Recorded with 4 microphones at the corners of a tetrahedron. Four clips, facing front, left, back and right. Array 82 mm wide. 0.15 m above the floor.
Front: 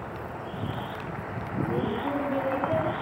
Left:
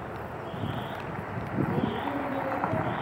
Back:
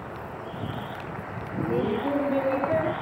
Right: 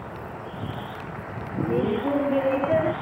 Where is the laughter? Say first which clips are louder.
Right 7 dB, back 3 dB; 120° right; by 2.9 s 110° right.